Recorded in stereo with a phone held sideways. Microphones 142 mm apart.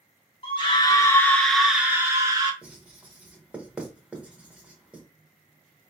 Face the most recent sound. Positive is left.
turn(degrees=-10)  # may be behind; listen again after turning